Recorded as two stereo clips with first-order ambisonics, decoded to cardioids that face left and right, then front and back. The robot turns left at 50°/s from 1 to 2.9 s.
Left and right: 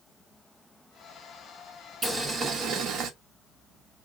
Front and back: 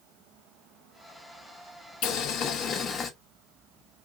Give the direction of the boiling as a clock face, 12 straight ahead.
12 o'clock.